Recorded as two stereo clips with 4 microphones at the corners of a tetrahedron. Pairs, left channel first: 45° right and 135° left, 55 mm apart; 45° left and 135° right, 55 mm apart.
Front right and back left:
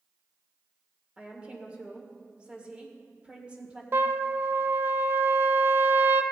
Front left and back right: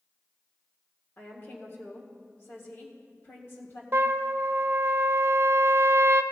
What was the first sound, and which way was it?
A woman speaking, 70° left.